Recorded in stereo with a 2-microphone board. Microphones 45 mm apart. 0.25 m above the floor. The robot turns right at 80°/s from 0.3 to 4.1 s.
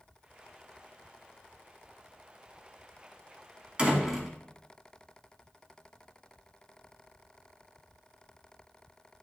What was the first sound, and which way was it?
A door slam, 25° right (ahead or behind).